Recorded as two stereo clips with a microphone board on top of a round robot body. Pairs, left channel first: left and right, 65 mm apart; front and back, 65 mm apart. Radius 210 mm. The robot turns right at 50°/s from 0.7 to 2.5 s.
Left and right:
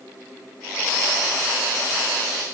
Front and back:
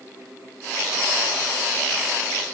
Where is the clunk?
I don't hear a clunk.